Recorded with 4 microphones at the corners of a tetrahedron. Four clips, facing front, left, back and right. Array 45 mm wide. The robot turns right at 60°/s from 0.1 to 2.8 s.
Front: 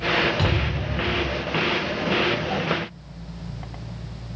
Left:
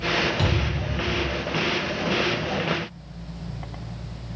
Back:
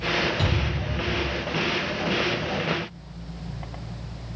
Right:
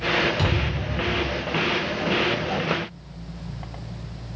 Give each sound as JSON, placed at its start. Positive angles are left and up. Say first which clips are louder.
{"t": 0.4, "sound": "a thud", "louder": "even, front 2 dB", "azimuth_deg": -10, "distance_m": 1.1}